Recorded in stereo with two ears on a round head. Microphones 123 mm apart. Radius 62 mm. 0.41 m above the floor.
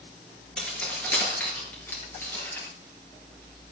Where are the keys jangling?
5° left (ahead or behind), 4.5 m; by 2.7 s 15° left (ahead or behind), 5.5 m.